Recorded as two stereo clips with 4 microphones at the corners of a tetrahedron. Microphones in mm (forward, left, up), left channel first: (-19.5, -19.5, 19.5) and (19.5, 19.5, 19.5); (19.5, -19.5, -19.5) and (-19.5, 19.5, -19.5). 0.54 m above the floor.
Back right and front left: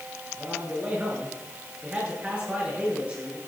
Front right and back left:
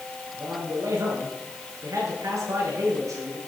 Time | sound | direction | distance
0.3 | a man speaking | 110° left | 8.5 m